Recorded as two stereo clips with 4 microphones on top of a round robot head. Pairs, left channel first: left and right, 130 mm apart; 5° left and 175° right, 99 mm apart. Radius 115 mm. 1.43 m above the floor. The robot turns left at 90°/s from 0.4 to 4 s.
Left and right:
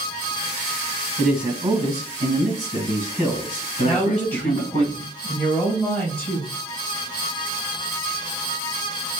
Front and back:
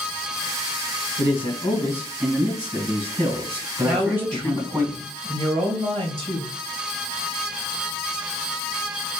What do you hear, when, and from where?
1.2 s a man speaking: 5° left, 1.8 m; by 4.8 s 110° left, 1.8 m
3.8 s a woman speaking: straight behind, 1.5 m; by 6.5 s 165° left, 1.5 m